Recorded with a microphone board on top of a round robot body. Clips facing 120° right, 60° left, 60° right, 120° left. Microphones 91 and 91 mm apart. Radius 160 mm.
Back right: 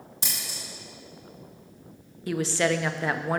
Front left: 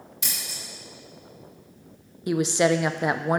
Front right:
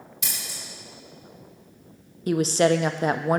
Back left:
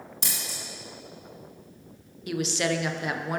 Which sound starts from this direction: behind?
Scissors, at 0.2 s.